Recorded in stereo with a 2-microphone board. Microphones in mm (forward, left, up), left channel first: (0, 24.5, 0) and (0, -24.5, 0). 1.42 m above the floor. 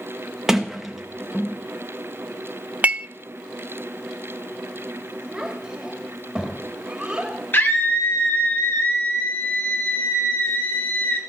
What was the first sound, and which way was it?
A sliding door, 5° right (ahead or behind).